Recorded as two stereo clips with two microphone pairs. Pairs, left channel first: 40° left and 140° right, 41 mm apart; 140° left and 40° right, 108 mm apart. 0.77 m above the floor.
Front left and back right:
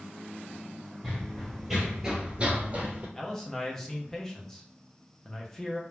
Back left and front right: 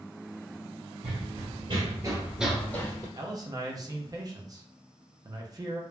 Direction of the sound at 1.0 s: 40° right.